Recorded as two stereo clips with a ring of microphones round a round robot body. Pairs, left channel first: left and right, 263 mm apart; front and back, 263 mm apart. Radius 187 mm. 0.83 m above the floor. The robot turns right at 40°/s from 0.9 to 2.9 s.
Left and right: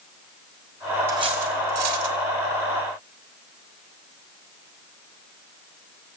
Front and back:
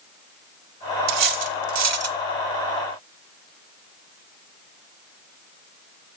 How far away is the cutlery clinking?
About 0.6 m.